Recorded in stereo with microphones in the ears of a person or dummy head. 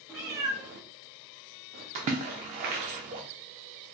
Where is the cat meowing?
Centre (ahead or behind), 0.7 m; by 1.9 s 70° right (ahead or behind), 1.9 m.